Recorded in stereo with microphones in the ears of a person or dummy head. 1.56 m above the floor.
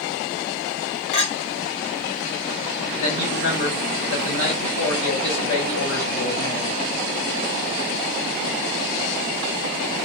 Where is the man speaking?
80° left, 2.5 m.